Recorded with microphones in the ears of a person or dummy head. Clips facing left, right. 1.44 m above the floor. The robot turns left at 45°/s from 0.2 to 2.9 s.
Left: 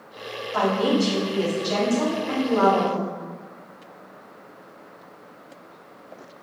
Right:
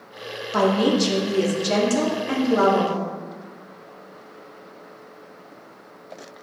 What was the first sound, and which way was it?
A woman speaking, 55° right.